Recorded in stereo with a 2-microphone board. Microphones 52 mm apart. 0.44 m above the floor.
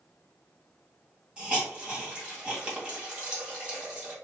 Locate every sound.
1.4 s a hiss: 20° right (ahead or behind), 1.8 m